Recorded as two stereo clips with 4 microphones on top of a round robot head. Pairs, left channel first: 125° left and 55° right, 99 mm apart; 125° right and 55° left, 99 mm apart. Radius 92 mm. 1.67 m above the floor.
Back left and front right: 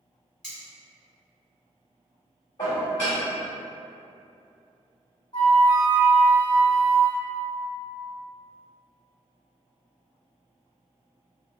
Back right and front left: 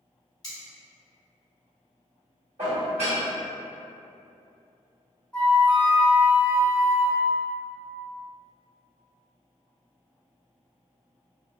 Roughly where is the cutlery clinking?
Behind right.